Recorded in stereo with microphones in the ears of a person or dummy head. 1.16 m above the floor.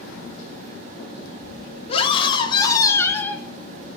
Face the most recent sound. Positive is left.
turn(degrees=5)  # may be behind; listen again after turning